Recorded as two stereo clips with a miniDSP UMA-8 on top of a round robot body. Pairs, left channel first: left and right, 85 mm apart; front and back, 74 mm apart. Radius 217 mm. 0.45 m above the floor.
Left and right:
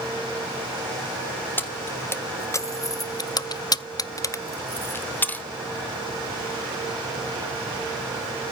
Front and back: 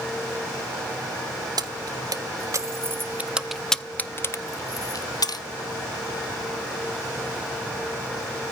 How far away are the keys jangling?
About 1.3 m.